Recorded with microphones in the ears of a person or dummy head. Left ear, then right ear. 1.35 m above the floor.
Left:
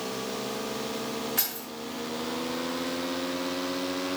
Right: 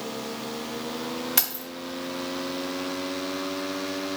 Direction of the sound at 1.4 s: 30° right (ahead or behind).